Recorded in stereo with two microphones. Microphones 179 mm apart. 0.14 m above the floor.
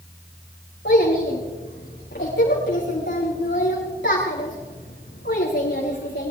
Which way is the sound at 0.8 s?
80° left.